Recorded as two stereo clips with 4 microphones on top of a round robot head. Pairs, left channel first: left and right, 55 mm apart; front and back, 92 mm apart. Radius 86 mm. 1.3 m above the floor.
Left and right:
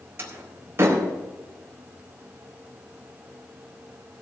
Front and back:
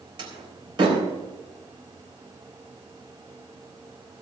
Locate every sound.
0.2 s a door slam: 135° right, 4 m